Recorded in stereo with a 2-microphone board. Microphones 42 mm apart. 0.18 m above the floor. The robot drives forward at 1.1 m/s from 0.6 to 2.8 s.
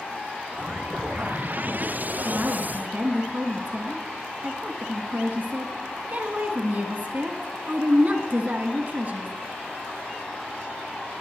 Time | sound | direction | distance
2.2 | a woman speaking | 35° right (ahead or behind) | 2 m